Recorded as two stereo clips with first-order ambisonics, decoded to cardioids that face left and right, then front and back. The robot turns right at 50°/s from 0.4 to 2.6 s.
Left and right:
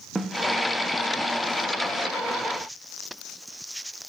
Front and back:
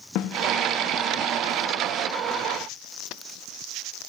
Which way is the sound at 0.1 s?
10° right.